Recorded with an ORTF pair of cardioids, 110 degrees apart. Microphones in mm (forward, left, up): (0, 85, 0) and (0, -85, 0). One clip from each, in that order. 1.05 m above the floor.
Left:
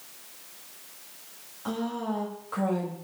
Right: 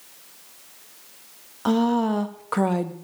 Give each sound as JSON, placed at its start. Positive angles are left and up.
{"t": 1.6, "sound": "a woman speaking", "azimuth_deg": -65, "distance_m": 1.1}